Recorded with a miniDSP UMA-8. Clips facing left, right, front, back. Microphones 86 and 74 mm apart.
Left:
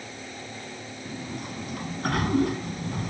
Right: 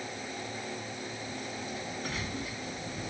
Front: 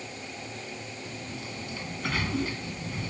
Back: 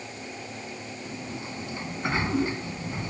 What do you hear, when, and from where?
1.1 s a sliding door: 115° left